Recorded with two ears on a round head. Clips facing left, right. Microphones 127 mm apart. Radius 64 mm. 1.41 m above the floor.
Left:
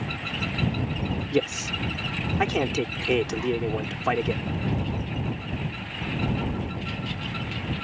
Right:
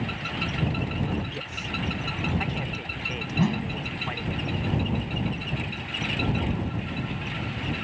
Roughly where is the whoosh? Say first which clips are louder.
Left 1 dB; right.